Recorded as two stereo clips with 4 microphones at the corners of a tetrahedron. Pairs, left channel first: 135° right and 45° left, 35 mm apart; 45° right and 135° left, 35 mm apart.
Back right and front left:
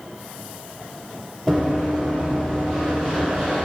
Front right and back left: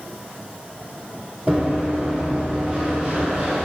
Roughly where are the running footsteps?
Behind left.